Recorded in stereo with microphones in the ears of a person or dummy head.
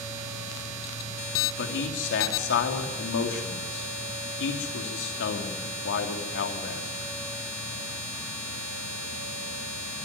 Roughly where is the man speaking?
Left.